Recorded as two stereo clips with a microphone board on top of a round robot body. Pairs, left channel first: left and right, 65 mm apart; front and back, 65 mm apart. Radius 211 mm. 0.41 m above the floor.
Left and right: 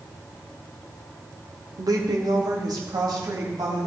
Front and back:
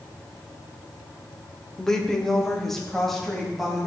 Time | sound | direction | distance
1.8 | a woman speaking | 80° right | 1.6 m